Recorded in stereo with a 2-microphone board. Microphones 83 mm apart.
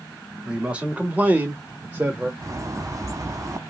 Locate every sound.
0.5 s a man speaking: 15° right (ahead or behind), 1.8 m; by 2.3 s 20° right (ahead or behind), 1.3 m
2.4 s a bird: 40° right (ahead or behind), 0.6 m